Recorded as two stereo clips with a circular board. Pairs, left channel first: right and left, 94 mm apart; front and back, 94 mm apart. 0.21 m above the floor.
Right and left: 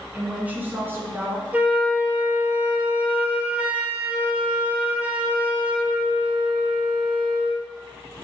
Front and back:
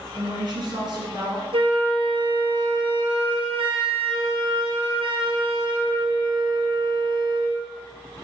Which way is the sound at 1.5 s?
165° left.